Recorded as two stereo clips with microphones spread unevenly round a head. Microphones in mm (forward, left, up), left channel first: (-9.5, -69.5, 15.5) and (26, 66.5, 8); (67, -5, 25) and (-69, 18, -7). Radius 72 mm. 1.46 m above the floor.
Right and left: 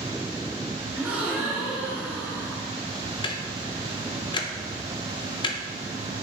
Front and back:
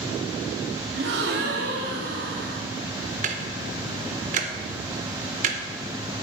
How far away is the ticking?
About 0.5 m.